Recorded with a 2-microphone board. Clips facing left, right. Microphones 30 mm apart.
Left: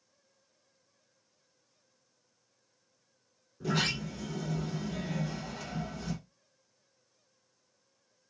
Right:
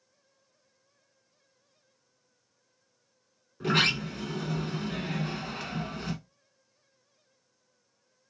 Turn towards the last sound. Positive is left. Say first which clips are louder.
# right 6 dB
turn(degrees=-65)  # may be behind; listen again after turning